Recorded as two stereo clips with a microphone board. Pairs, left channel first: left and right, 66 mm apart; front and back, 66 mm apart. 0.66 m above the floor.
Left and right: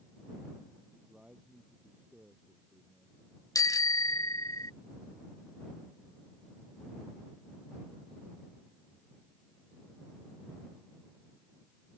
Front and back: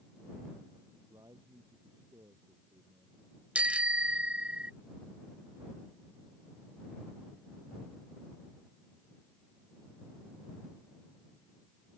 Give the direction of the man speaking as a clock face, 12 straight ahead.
5 o'clock.